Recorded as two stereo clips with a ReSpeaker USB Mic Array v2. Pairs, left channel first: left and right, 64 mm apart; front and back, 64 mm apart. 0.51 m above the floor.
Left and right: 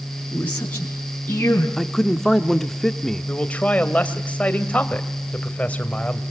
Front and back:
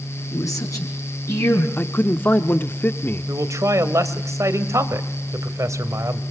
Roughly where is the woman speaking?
Ahead left.